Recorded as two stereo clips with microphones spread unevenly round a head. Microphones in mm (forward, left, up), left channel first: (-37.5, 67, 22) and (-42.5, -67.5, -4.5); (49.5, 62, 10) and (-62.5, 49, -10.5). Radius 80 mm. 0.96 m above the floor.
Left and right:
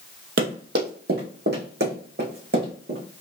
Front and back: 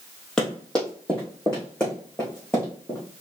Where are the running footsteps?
70° right, 1.8 m; by 3.0 s 75° right, 4 m.